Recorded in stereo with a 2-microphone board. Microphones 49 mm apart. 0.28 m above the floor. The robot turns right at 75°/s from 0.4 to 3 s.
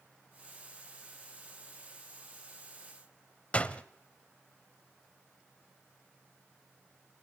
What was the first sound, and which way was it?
A door slam, 25° left (ahead or behind).